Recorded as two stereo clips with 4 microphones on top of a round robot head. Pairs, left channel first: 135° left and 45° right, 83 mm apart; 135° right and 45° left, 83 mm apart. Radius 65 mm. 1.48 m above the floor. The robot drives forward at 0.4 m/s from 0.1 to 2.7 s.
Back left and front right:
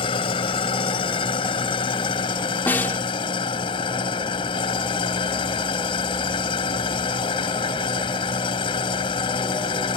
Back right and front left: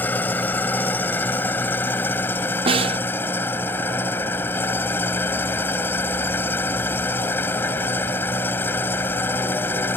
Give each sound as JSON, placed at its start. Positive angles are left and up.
{"t": 0.0, "sound": "an engine running", "azimuth_deg": 155}
{"t": 2.7, "sound": "a snare drum", "azimuth_deg": 65}